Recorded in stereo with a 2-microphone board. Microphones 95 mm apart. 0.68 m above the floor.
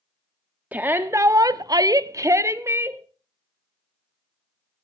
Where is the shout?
20° right (ahead or behind), 0.9 m; by 3.0 s 25° right (ahead or behind), 1.5 m.